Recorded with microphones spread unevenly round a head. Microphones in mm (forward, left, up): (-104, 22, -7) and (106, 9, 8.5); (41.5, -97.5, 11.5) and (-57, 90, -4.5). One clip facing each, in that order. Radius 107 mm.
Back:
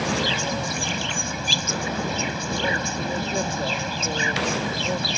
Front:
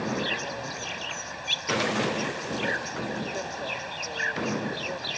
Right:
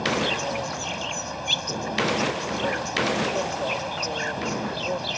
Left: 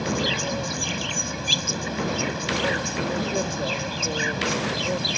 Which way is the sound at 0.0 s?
175° left.